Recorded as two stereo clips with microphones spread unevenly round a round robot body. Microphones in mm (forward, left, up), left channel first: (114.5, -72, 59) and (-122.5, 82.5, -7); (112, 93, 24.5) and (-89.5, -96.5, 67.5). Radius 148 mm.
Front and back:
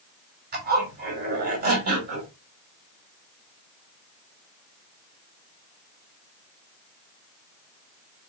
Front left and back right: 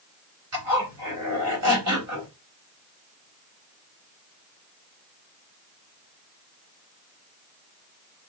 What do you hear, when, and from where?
0.5 s a zipper: 170° right, 2.5 m